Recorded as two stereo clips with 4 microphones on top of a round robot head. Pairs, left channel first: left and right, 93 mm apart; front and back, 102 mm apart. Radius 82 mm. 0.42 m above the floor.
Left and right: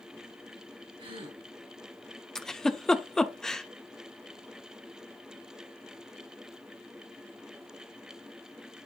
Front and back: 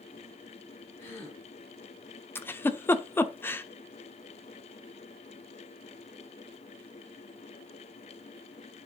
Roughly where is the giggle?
Ahead.